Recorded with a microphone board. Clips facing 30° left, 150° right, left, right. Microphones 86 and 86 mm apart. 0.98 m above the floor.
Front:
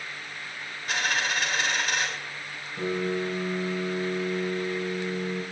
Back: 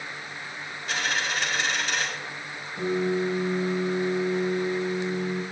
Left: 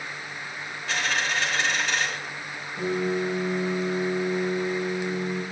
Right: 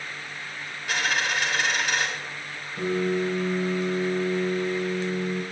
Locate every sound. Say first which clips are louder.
0.9 s a dropped coin: front 1 dB, right 1 dB; 15° right, 4.5 m
2.8 s a piano: back 3 dB, right 1 dB; 20° right, 7 m